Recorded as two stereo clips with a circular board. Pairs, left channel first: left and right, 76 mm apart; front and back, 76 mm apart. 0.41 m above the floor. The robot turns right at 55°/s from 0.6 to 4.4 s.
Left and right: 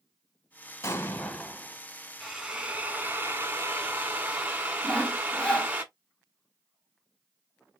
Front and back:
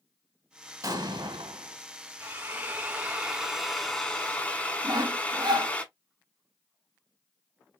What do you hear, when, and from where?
0.8 s an explosion: 145° left, 0.9 m; by 1.8 s 165° right, 0.9 m
2.2 s a drill: 170° right, 1.4 m; by 5.8 s 45° right, 1.4 m
4.8 s sawing: 165° left, 1.0 m